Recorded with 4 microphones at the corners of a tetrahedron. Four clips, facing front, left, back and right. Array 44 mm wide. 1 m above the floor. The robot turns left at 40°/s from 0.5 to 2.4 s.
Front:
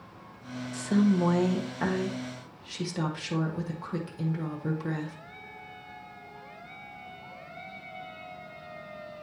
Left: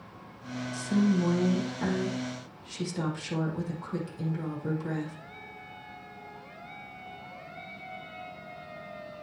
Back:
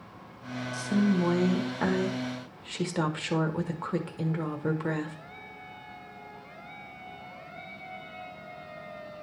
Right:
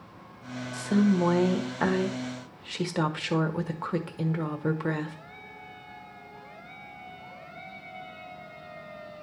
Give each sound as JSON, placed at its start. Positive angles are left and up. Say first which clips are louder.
{"t": 0.7, "sound": "a woman speaking", "louder": "right 2 dB, front 2 dB", "azimuth_deg": -50, "distance_m": 1.5}